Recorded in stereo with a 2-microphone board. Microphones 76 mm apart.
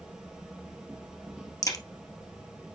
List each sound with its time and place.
0.0 s an insect: 10° right (ahead or behind), 2.5 m
1.6 s a crack: 45° left (ahead or behind), 1.7 m